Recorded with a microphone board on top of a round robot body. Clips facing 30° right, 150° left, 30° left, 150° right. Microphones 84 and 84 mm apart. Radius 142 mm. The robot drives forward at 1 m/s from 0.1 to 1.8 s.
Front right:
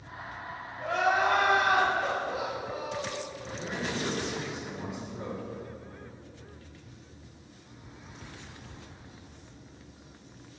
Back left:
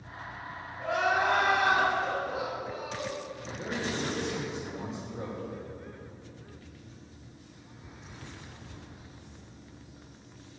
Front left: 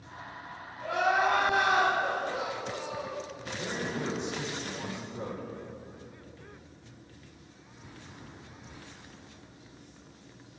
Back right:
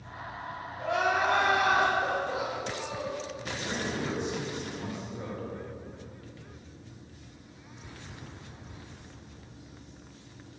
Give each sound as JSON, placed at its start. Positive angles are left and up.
{"t": 0.8, "sound": "crying", "azimuth_deg": -135, "distance_m": 2.5}
{"t": 3.5, "sound": "a man speaking", "azimuth_deg": 95, "distance_m": 2.5}